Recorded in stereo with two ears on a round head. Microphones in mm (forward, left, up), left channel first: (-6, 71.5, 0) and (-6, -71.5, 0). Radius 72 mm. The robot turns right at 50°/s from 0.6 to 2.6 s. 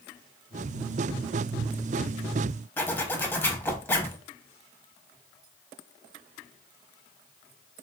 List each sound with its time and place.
2.8 s a zipper: 15° left (ahead or behind), 0.6 m